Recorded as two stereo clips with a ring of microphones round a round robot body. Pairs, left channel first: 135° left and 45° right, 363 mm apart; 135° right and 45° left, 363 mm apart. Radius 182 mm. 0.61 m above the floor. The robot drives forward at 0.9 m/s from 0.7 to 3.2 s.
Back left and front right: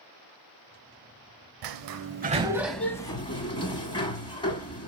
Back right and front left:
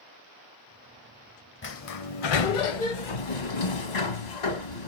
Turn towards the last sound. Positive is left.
turn(degrees=-150)